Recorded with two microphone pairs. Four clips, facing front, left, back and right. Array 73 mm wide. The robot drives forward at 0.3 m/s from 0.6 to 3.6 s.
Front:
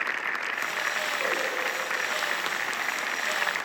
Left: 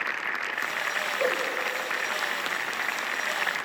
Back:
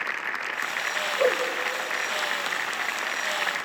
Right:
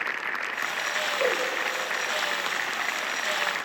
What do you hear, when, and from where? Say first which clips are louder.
1.2 s a whoosh: right 1 dB, back 9 dB; 170° right, 3.5 m